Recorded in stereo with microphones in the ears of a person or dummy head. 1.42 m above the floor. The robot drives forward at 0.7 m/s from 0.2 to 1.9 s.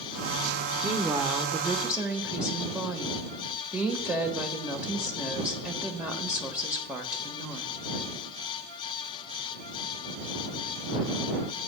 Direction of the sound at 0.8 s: 15° right (ahead or behind).